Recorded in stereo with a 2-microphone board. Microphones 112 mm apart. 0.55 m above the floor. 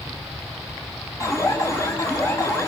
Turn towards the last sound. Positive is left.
turn(degrees=30)  # may be behind; listen again after turning